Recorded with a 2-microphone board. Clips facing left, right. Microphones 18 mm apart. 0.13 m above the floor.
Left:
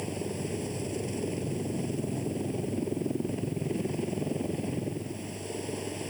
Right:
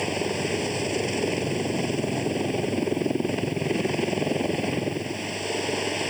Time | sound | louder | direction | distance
0.0 | a helicopter | right 8 dB | 60° right (ahead or behind) | ?